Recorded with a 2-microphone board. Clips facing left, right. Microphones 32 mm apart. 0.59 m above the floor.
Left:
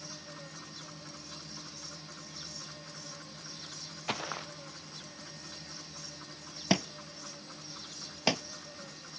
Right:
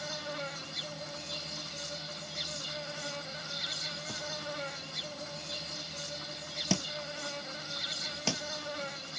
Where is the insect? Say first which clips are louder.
Right 9 dB; 65° right (ahead or behind).